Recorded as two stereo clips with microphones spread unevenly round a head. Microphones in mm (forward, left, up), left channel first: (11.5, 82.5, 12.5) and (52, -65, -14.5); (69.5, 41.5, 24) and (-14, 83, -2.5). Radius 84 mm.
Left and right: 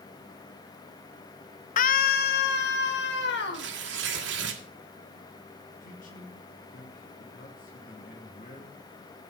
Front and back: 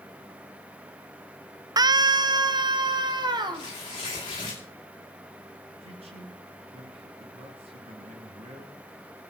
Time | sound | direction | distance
1.8 | a scream | 100° left | 0.6 m
3.5 | tearing paper | 90° right | 2.5 m
5.8 | a man speaking | 150° left | 3 m